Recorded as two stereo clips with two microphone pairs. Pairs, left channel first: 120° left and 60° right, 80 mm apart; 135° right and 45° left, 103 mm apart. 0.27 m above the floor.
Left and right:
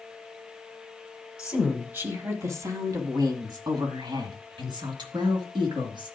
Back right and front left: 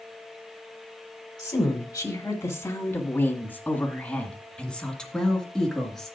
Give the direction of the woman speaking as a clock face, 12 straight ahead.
4 o'clock.